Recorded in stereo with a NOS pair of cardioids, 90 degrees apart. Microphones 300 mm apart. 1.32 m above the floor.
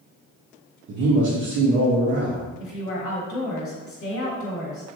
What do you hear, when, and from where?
0.9 s a man speaking: 70° right, 0.7 m
2.6 s a woman speaking: 40° left, 1.0 m